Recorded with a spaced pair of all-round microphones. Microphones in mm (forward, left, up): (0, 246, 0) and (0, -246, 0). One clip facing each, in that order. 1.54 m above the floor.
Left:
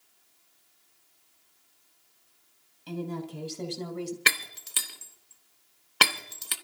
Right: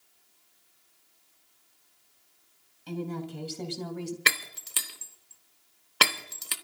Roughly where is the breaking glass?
Centre.